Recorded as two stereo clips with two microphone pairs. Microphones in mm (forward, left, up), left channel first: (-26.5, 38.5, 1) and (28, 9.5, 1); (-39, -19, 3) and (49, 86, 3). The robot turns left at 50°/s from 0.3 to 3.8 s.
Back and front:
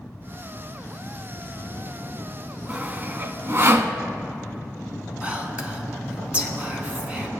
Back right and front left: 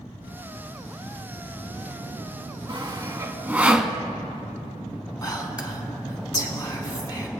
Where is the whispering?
85° right, 1.3 m.